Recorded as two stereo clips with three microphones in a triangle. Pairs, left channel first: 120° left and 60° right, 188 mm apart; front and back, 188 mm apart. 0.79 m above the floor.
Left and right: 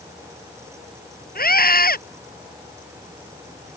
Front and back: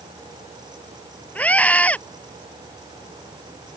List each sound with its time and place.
1.4 s a scream: 80° left